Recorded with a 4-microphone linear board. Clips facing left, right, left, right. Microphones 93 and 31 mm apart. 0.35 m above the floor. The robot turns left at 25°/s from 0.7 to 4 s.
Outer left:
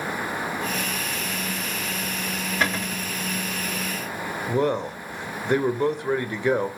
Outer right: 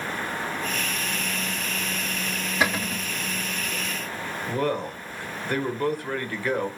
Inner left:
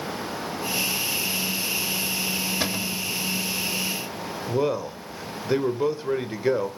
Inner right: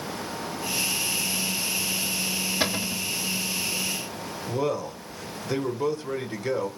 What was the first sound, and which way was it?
A cupboard door, 5° right (ahead or behind).